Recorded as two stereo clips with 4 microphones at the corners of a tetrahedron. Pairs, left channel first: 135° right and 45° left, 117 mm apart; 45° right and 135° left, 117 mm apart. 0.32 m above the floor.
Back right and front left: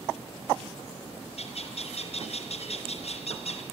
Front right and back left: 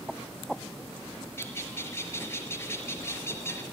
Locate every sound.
1.4 s a bird: 110° right, 4 m